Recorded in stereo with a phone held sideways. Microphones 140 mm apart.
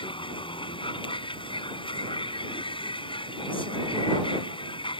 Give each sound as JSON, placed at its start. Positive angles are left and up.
{"t": 0.0, "sound": "a vehicle", "side_deg": 40}